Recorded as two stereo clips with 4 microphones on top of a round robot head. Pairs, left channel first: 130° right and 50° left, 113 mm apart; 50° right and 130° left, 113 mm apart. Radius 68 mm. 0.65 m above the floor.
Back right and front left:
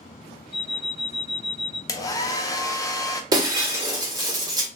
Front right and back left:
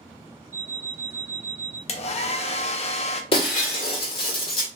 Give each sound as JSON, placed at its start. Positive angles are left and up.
{"t": 0.5, "sound": "an alarm clock", "azimuth_deg": 140, "distance_m": 1.3}
{"t": 1.9, "sound": "a hair dryer", "azimuth_deg": -75, "distance_m": 0.6}
{"t": 3.3, "sound": "breaking glass", "azimuth_deg": -10, "distance_m": 1.2}